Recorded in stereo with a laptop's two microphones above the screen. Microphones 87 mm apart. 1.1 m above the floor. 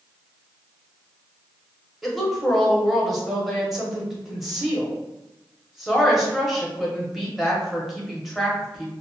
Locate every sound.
2.0 s a woman speaking: centre (ahead or behind), 1.0 m